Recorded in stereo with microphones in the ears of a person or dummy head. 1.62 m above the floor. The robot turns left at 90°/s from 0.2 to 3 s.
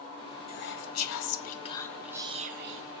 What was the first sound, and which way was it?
Whispering, 135° left.